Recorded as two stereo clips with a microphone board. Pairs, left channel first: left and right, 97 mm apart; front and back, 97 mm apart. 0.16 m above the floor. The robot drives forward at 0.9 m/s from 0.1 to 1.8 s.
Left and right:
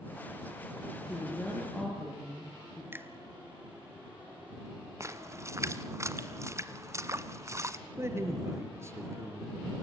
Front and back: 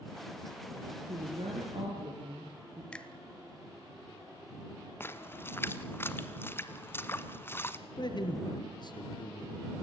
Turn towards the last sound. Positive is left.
turn(degrees=-30)